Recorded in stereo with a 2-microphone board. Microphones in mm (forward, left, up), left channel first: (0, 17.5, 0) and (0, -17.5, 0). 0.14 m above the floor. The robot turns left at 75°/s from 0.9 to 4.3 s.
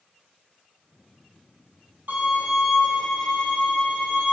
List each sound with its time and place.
2.1 s a violin: 115° right, 1.6 m; by 4.3 s 80° left, 1.6 m